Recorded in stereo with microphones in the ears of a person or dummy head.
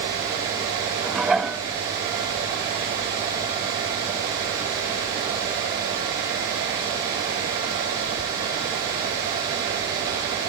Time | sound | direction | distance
1.0 | dishes clattering | 5° right (ahead or behind) | 0.8 m